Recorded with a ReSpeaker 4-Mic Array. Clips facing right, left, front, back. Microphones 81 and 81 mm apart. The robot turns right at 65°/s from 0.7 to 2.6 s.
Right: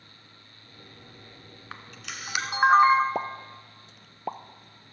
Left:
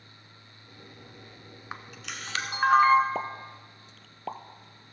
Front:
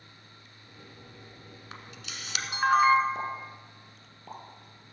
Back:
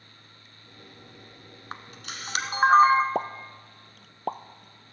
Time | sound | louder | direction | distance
1.7 | a camera shutter | left 1 dB, back 6 dB | 160° left | 0.9 m
3.1 | a pop | right 2 dB, back 4 dB | 165° right | 0.5 m